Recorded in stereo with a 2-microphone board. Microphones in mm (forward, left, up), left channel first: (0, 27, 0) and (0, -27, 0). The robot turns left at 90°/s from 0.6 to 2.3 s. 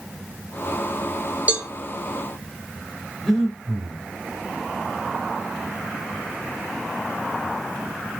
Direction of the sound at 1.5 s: 30° right (ahead or behind).